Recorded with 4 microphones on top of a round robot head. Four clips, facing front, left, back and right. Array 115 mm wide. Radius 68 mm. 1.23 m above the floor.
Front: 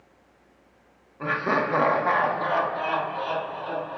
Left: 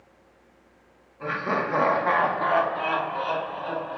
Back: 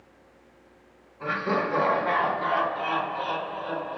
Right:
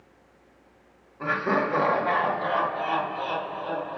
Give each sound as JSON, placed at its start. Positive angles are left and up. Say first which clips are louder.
{"t": 1.2, "sound": "laughter", "louder": "right 2 dB, front 2 dB", "azimuth_deg": -35, "distance_m": 0.5}